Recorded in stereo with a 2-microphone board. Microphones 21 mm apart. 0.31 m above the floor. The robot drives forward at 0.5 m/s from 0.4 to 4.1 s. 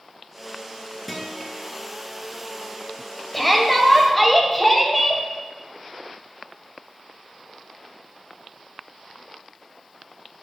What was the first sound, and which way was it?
A guitar, 10° left (ahead or behind).